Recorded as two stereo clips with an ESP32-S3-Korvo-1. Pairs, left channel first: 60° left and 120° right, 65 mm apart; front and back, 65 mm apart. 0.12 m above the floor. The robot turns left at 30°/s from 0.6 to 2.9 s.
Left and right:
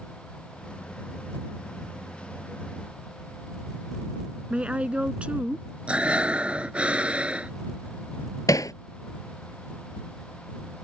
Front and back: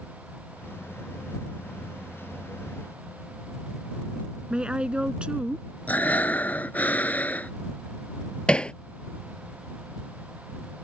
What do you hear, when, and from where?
4.5 s a woman speaking: 140° right
5.9 s breathing: 55° right
8.5 s hammering: 75° left